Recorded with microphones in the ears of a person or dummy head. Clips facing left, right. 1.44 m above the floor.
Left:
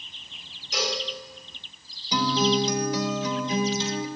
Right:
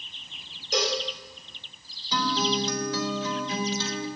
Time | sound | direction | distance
0.7 | a cowbell | 40° right (ahead or behind) | 2.5 m
2.1 | a guitar | 10° left (ahead or behind) | 1.4 m